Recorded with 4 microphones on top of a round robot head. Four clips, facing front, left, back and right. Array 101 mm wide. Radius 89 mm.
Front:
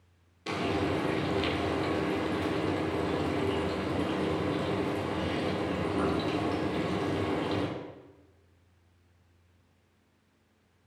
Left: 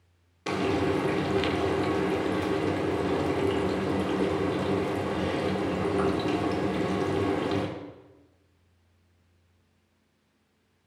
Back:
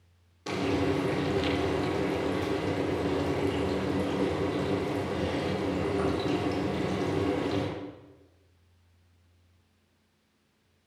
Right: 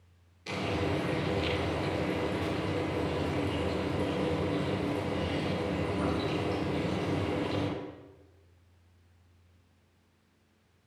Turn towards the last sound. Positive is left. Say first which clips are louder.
# left 6 dB, back 2 dB
turn(degrees=95)